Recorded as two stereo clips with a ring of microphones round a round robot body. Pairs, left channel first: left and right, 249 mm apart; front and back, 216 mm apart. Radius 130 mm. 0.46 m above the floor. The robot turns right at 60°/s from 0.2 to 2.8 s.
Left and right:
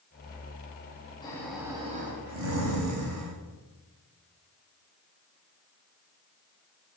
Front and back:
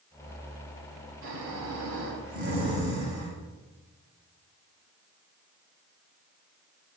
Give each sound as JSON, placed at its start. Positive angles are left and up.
{"t": 1.2, "sound": "snoring", "azimuth_deg": 165, "distance_m": 2.5}